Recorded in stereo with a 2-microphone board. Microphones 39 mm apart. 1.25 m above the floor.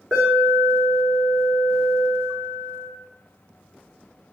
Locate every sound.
0.1 s an alarm: 15° right (ahead or behind), 3.5 m